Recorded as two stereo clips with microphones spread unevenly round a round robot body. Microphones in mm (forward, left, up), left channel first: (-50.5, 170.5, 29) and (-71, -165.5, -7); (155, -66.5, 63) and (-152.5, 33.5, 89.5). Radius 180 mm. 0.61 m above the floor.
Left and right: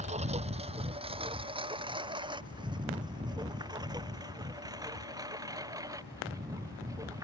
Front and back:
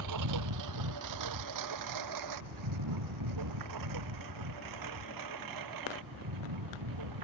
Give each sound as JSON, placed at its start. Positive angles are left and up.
{"t": 0.0, "sound": "a lawn mower", "azimuth_deg": -165}